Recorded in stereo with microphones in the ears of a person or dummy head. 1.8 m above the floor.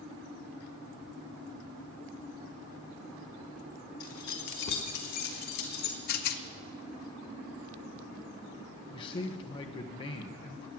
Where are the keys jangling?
40° left (ahead or behind), 1.2 m; by 6.0 s 60° left (ahead or behind), 2.5 m.